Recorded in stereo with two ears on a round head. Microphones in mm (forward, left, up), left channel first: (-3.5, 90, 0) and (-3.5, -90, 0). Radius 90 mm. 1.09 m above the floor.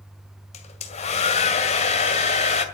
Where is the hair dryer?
35° left (ahead or behind), 1.9 m.